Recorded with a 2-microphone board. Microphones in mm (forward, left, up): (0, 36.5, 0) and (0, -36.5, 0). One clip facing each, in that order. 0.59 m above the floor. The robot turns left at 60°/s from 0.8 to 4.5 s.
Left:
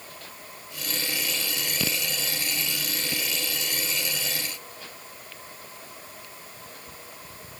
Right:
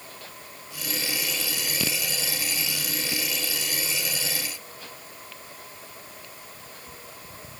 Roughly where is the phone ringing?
I don't hear a phone ringing.